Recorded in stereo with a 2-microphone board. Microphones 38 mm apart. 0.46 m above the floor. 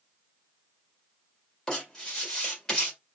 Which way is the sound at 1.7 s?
15° left (ahead or behind).